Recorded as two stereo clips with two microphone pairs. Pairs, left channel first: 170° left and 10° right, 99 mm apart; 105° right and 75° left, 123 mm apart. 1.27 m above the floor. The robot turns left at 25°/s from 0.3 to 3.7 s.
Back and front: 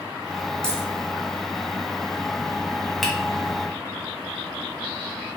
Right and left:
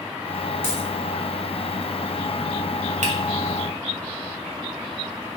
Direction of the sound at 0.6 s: 175° right.